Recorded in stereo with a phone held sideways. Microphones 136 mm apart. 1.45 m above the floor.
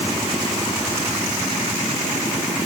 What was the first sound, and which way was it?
Only background noise.